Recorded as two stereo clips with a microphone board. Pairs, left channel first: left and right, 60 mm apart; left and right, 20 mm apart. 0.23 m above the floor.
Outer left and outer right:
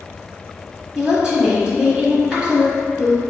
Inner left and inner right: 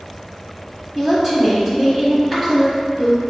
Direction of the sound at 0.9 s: 20° right (ahead or behind).